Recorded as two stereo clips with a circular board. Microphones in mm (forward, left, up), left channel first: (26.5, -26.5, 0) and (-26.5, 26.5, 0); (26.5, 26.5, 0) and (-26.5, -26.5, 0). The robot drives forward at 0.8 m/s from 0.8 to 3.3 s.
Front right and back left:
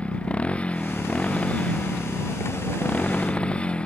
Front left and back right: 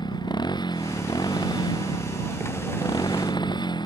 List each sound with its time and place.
0.0 s a motorcycle: 30° left